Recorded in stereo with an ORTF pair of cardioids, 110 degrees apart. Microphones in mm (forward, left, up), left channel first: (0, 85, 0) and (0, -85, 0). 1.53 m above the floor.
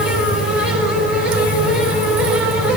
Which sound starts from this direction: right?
A fan, at 0.0 s.